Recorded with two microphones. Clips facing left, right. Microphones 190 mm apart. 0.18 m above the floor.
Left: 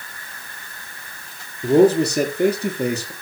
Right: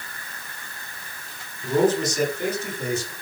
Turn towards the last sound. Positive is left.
turn(degrees=65)  # may be behind; listen again after turning